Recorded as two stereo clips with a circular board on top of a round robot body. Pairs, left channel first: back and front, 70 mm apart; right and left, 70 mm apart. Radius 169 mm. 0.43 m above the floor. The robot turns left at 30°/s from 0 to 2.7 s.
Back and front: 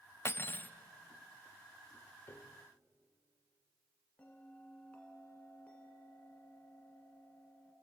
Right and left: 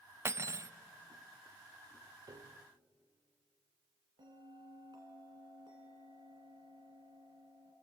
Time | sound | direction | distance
0.2 | cutlery clinking | 135° left | 0.6 m
2.3 | a piano | 125° left | 0.8 m
4.2 | a bell | 105° left | 1.8 m